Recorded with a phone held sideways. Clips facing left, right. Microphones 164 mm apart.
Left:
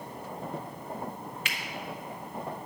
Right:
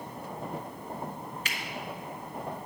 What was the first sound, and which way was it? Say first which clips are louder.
A finger snap: even; 40° right (ahead or behind).